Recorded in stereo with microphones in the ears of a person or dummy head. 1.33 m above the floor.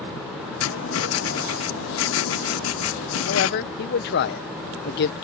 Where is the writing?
70° left (ahead or behind).